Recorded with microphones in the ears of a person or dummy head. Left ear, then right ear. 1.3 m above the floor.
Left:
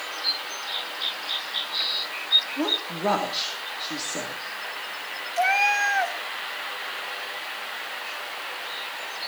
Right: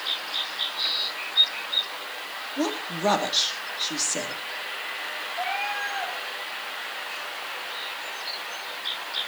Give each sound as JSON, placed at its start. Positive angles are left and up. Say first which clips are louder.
{"t": 2.6, "sound": "a woman speaking", "louder": "left 2 dB", "side_deg": -20, "distance_m": 2.5}
{"t": 5.4, "sound": "a cat meowing", "louder": "left 9 dB", "side_deg": 65, "distance_m": 1.6}